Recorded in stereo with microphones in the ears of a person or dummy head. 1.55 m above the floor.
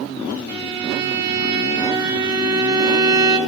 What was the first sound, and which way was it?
A violin, 25° right (ahead or behind).